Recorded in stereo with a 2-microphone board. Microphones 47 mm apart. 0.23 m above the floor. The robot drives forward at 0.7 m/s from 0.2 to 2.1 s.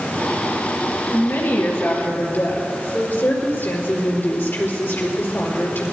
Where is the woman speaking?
60° left (ahead or behind), 4 m; by 5.9 s 55° left (ahead or behind), 4 m.